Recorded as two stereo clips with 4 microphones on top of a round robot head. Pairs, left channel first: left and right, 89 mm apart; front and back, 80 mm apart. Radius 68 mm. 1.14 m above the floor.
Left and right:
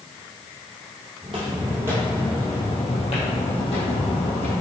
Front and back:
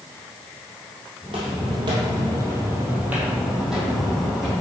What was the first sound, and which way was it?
Footsteps, 135° right.